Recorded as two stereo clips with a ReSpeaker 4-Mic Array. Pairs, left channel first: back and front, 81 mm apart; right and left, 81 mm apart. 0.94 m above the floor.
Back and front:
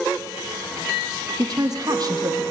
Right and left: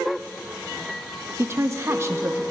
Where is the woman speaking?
35° left, 0.8 m.